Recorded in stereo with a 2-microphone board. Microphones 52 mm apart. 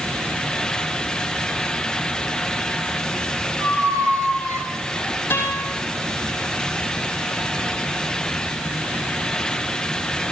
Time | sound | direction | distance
3.6 | a squeak | 85° right | 2.5 m
5.3 | a guitar | 50° left (ahead or behind) | 9 m